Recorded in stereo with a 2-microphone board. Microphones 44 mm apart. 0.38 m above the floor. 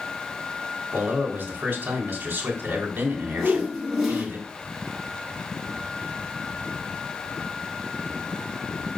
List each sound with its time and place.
0.9 s a man speaking: 35° right (ahead or behind), 3 m
3.4 s a whoosh: 5° left (ahead or behind), 3 m